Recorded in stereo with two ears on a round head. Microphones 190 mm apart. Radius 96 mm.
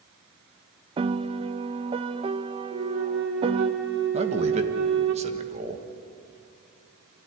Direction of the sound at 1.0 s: 25° right (ahead or behind).